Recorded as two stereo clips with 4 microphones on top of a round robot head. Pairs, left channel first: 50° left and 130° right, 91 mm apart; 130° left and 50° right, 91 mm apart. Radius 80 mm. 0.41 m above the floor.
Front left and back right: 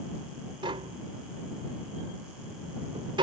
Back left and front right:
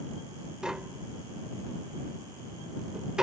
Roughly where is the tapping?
Behind right.